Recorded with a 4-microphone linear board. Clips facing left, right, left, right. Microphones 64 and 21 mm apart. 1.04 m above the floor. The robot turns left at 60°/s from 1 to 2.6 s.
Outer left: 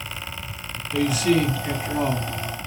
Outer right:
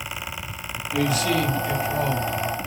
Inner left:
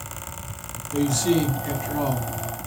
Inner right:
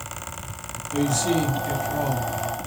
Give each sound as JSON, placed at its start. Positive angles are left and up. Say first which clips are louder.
{"t": 0.9, "sound": "a man speaking", "louder": "outer left 2 dB, inner left 1 dB", "azimuth_deg": -175, "distance_m": 1.1}